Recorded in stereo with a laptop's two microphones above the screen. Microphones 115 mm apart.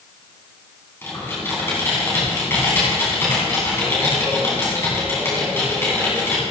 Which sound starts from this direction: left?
Typing on a keyboard, at 1.0 s.